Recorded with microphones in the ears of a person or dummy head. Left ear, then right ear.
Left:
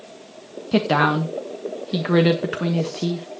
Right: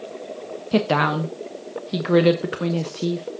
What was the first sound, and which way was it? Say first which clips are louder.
A woman speaking: left 1 dB; 10° right (ahead or behind).